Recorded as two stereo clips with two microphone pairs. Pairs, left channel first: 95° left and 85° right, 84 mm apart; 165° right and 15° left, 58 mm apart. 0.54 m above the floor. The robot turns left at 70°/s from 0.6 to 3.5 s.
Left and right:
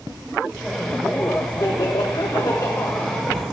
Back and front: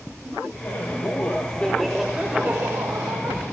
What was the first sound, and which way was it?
Laughter, 170° right.